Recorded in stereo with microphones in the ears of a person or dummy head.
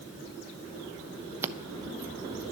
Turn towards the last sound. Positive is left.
turn(degrees=-15)  # may be behind; listen again after turning